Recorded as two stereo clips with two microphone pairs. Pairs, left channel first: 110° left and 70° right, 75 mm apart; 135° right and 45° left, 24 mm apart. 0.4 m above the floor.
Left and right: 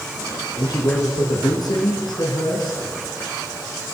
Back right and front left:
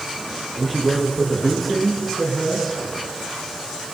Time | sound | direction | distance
0.6 | a man speaking | 135° left | 5.5 m